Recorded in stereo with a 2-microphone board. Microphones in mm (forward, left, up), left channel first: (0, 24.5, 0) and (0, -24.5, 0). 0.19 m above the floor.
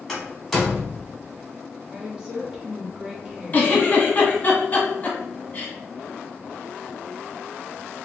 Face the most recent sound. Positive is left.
turn(degrees=35)  # may be behind; listen again after turning